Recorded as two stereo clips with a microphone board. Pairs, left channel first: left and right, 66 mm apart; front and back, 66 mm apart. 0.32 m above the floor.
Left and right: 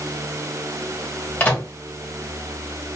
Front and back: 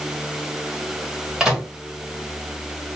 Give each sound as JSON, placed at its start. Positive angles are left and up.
{"t": 1.4, "sound": "a microwave", "azimuth_deg": 110, "distance_m": 1.3}